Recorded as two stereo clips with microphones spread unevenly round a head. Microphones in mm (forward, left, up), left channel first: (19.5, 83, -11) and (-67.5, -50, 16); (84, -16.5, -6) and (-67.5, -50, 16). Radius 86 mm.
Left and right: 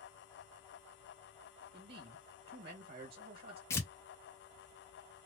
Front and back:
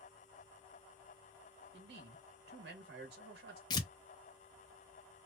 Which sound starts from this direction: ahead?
Tearing paper, at 3.7 s.